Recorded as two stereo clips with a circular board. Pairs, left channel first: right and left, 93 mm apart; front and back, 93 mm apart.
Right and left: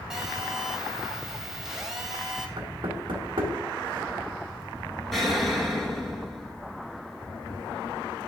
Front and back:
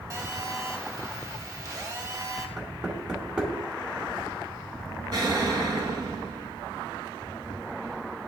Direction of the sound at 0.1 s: 170° left.